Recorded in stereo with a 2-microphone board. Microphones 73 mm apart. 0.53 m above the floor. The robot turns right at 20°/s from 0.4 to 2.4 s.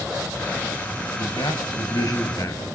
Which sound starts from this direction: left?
A man speaking, at 1.2 s.